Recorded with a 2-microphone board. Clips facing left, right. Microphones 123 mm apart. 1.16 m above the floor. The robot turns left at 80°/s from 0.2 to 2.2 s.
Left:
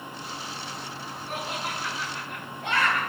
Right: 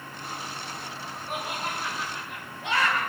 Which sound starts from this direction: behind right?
Laughter, at 1.3 s.